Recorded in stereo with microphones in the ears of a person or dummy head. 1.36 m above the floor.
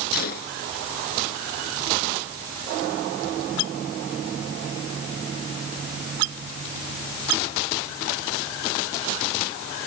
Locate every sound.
0.1 s a gunshot: 55° left (ahead or behind)